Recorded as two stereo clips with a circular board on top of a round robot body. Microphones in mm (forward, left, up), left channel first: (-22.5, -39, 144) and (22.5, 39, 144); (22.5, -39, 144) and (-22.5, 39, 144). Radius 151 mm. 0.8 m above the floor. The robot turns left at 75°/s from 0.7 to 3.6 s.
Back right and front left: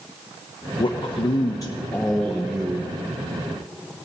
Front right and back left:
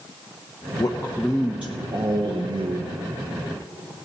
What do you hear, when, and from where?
0.8 s a man speaking: 105° right, 1.0 m; by 2.9 s 95° left, 1.0 m